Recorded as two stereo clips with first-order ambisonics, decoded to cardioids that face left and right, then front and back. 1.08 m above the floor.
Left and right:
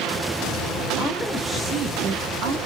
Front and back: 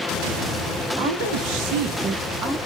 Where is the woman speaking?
165° left, 1.5 m; by 2.6 s 110° right, 1.2 m.